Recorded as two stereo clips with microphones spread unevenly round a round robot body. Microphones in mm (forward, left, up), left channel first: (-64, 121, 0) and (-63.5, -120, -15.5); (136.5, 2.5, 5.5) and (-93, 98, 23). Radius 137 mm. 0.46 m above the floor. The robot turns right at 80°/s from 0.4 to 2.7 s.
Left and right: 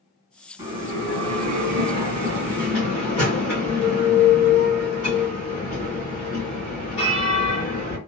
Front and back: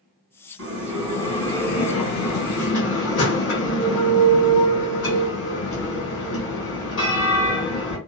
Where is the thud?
No thud in this recording.